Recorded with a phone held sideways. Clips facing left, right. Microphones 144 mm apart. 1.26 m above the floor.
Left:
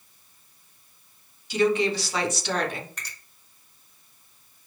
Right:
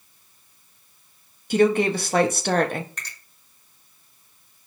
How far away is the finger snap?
About 1.8 m.